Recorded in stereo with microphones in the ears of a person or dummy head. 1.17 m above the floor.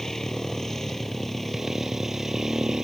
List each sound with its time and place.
0.0 s a motorcycle: 5° left (ahead or behind); by 2.9 s 5° right (ahead or behind)